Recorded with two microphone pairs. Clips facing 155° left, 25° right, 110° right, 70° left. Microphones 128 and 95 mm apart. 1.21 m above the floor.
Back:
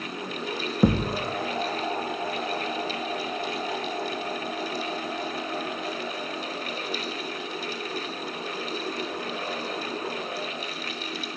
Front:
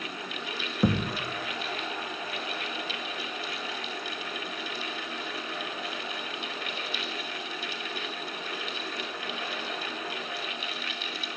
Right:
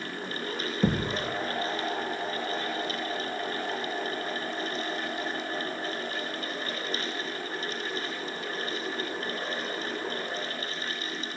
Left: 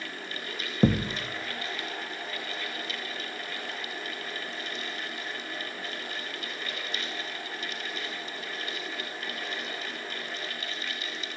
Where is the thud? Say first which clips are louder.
Back 4 dB, left 3 dB; 90° left, 0.7 m.